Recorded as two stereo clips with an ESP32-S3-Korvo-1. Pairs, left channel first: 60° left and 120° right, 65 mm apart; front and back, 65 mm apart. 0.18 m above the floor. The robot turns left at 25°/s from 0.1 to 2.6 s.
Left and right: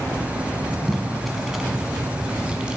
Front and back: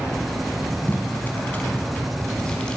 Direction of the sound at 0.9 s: 20° right.